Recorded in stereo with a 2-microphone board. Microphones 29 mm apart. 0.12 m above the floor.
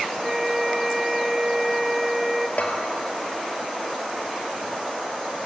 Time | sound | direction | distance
0.2 | a flute | 10° right (ahead or behind) | 0.7 m
2.6 | a bell | 60° left (ahead or behind) | 2.5 m